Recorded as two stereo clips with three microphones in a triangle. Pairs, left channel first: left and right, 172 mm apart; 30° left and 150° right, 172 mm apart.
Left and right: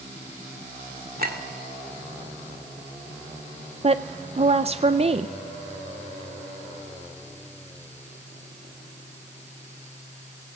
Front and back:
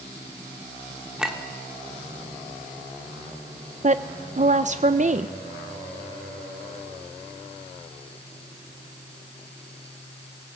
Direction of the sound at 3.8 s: 130° right.